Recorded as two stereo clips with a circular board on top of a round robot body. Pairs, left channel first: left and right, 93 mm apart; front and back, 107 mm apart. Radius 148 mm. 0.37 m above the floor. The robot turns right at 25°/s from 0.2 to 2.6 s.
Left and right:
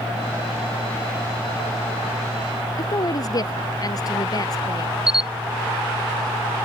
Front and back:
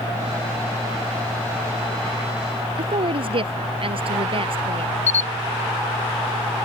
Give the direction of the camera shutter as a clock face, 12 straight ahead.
12 o'clock.